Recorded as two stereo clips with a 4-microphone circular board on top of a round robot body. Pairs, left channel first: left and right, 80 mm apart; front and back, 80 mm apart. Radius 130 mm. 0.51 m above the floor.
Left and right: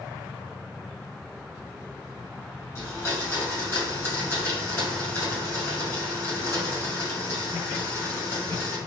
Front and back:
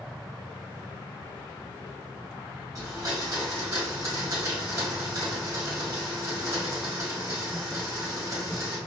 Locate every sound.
2.8 s a blender: 145° left, 1.6 m